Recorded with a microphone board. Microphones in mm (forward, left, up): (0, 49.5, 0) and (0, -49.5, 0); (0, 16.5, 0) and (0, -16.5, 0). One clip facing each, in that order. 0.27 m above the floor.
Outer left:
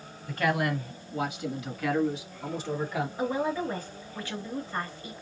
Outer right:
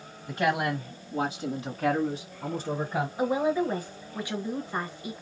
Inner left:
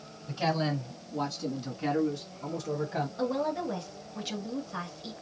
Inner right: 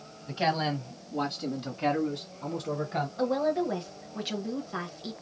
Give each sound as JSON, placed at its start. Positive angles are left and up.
{"t": 0.3, "sound": "a man speaking", "side_deg": -20, "distance_m": 1.4}
{"t": 3.2, "sound": "a woman speaking", "side_deg": -15, "distance_m": 0.9}